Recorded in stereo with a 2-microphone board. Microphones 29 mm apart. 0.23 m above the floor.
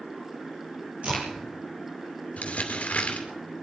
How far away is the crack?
About 5 m.